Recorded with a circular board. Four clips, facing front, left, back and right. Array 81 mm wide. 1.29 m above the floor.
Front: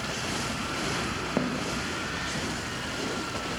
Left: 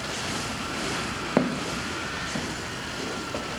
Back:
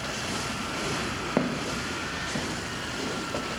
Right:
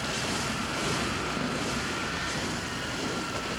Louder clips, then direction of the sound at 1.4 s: Left 5 dB, back 2 dB; 105° left.